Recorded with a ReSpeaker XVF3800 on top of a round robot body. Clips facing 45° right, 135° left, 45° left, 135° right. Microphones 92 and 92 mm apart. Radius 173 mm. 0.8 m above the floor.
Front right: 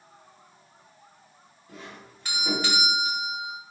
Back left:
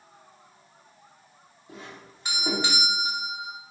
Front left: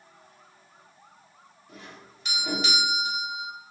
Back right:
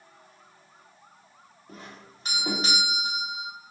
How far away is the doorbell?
About 1.5 m.